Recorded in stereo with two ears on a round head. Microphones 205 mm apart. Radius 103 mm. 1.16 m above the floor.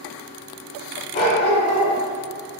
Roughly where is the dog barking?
Left.